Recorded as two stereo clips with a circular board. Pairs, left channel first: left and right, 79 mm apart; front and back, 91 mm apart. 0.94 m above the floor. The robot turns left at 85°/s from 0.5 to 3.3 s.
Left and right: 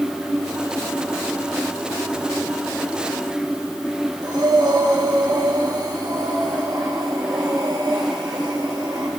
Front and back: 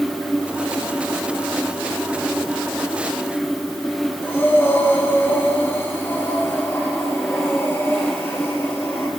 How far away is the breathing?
About 3 m.